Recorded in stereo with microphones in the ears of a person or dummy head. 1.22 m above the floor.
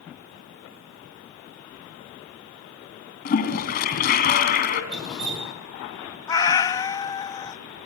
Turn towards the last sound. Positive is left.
turn(degrees=25)  # may be behind; listen again after turning